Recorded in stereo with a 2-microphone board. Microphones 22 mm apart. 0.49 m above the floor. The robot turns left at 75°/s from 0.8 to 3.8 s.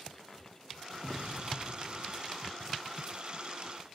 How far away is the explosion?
About 5.5 m.